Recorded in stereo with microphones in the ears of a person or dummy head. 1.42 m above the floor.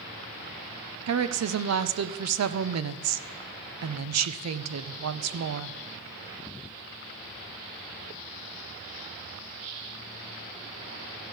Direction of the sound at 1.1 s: 75° right (ahead or behind).